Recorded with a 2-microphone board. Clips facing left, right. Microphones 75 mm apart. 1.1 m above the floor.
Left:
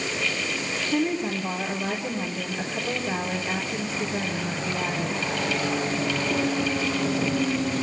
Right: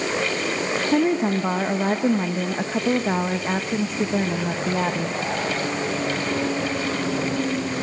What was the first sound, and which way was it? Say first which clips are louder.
A woman speaking: right 5 dB; 60° right (ahead or behind).